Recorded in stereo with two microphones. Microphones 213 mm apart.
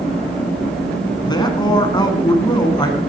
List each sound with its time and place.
1.2 s a man speaking: 20° left (ahead or behind), 1.3 m